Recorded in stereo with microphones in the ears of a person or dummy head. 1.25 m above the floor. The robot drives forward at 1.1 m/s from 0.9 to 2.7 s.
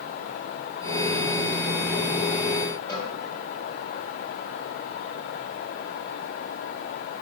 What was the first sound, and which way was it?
A cowbell, 20° left (ahead or behind).